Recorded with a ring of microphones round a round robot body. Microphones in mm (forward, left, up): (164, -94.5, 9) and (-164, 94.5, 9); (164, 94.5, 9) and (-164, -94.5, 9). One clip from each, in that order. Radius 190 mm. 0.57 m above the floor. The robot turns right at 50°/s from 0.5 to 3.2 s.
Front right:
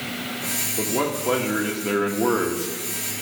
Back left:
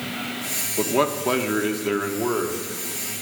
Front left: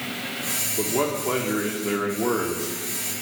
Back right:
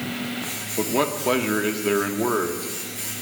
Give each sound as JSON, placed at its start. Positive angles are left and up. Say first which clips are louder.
{"t": 0.8, "sound": "a man speaking", "louder": "back left 5 dB, back right 3 dB", "azimuth_deg": 175, "distance_m": 1.4}